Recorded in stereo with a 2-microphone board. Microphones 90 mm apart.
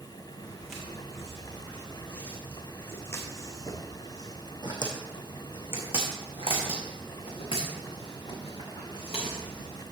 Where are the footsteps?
5° right (ahead or behind), 2.5 m; by 9.8 s 75° left (ahead or behind), 3.5 m.